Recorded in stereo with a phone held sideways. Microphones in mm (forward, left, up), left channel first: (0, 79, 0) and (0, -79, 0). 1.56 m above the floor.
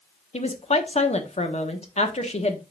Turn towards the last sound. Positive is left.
turn(degrees=45)  # may be behind; listen again after turning